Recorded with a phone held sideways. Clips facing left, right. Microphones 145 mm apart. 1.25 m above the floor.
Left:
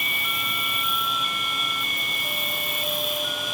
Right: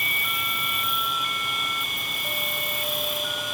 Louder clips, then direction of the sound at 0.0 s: Even; 70° left (ahead or behind).